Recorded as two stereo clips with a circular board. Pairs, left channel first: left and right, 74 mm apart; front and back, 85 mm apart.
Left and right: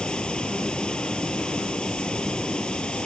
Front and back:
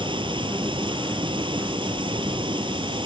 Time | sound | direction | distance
0.0 | running water | 165° left | ?